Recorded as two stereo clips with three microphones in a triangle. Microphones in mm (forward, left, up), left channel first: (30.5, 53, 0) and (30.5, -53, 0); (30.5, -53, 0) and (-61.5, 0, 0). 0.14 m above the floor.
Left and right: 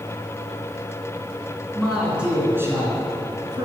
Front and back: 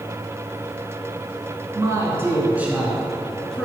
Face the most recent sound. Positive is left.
turn(degrees=-110)